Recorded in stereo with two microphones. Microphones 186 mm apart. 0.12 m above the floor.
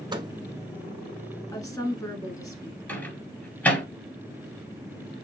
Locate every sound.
0.1 s a microwave: 25° right (ahead or behind), 0.9 m
1.5 s a woman speaking: 20° left (ahead or behind), 1.3 m
2.9 s a microwave: 10° left (ahead or behind), 1.9 m